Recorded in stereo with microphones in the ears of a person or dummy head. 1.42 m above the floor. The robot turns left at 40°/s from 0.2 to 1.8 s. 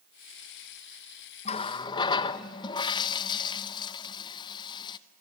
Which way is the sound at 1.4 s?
35° left (ahead or behind).